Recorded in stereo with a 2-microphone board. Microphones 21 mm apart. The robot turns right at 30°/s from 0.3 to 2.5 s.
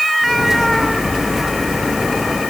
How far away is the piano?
I don't hear a piano.